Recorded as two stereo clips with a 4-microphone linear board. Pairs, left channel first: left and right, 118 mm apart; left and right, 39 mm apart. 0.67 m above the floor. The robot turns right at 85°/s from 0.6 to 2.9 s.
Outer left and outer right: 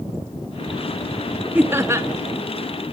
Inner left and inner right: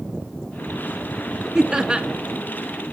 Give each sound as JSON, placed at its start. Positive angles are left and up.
{"t": 1.6, "sound": "laughter", "side_deg": -15, "distance_m": 0.6}